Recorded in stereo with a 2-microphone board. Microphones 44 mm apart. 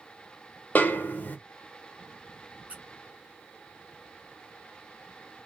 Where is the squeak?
30° right (ahead or behind), 1.1 m.